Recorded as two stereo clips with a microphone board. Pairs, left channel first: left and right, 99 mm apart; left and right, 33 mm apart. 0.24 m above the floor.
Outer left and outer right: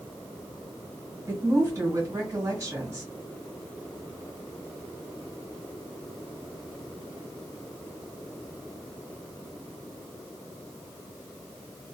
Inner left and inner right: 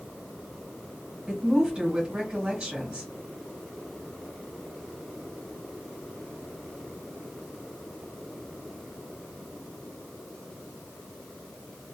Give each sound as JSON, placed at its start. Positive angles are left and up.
{"t": 1.3, "sound": "a woman speaking", "side_deg": -30, "distance_m": 1.6}